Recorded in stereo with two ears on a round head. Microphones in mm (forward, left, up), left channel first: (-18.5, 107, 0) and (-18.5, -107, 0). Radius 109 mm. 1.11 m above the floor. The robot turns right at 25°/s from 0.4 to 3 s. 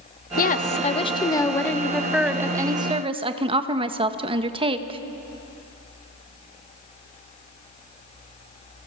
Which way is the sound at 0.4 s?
140° left.